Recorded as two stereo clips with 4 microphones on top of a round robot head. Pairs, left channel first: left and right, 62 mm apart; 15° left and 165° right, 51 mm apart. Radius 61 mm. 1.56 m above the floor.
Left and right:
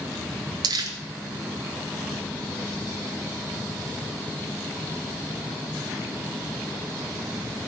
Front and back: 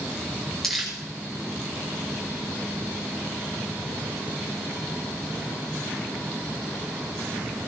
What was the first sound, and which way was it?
Crumpling, 70° right.